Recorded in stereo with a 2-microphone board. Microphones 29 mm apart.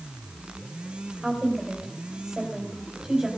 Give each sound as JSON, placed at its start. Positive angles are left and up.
{"t": 1.2, "sound": "a woman speaking", "side_deg": -20, "distance_m": 3.5}